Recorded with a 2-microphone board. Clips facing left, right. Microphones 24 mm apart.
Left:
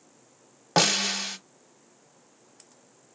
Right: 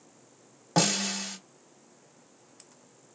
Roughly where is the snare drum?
Left.